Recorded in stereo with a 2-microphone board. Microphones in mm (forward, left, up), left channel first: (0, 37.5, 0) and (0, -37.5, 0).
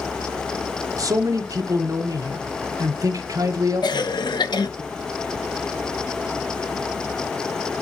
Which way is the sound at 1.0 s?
45° right (ahead or behind).